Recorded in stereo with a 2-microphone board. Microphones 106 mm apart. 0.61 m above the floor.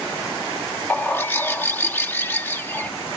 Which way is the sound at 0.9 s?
20° left (ahead or behind).